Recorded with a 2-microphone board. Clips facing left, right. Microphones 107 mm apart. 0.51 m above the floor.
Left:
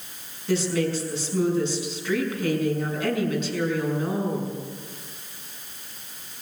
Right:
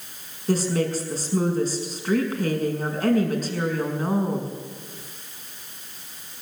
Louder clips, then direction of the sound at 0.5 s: Right 1 dB; 40° right (ahead or behind).